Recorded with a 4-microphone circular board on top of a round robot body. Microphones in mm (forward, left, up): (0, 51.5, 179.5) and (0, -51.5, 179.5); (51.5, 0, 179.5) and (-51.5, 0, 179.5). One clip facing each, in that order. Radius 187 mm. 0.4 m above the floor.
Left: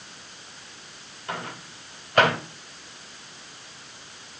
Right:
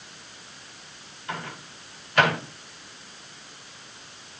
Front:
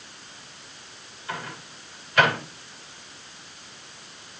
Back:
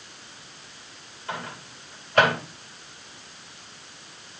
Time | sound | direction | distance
1.3 | a microwave | 135° left | 3 m